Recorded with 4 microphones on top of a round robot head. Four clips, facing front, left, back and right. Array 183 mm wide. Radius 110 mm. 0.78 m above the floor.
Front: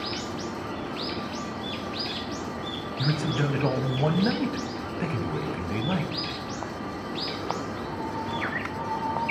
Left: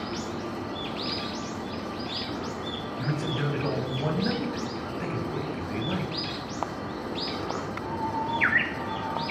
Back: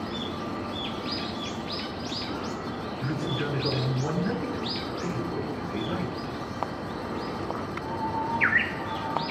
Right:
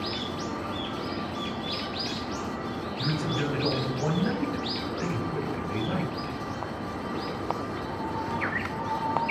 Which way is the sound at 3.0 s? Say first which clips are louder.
Even, front 4 dB; 5° right.